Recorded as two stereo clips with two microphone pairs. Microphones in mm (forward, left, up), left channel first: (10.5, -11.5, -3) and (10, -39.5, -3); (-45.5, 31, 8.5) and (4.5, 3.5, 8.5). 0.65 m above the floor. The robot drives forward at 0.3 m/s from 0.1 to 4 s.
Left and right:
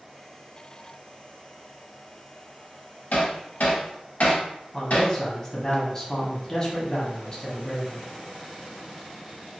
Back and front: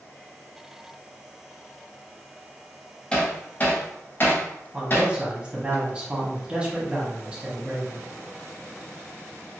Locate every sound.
3.1 s hammering: 80° left, 0.7 m; by 5.7 s 105° left, 0.7 m
4.7 s a man speaking: 30° left, 0.9 m